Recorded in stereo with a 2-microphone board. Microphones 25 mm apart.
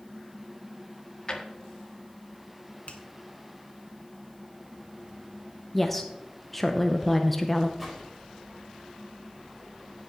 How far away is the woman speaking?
About 0.7 m.